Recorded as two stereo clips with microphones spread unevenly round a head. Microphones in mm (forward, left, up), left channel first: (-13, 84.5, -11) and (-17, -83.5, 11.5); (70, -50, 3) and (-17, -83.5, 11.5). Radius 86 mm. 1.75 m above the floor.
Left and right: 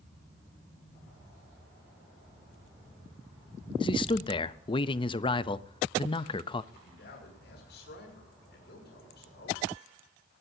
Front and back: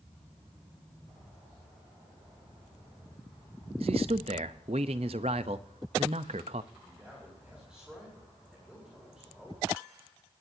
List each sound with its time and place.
3.8 s a man speaking: 150° left, 0.6 m
6.7 s a man speaking: 115° left, 6 m